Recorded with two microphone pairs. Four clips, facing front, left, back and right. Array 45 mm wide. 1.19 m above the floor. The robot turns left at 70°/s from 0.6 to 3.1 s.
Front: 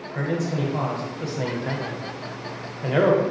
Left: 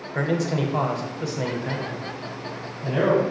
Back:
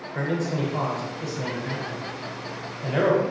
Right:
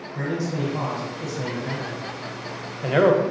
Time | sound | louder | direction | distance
0.1 | a man speaking | left 3 dB, front 1 dB | 95° left | 0.6 m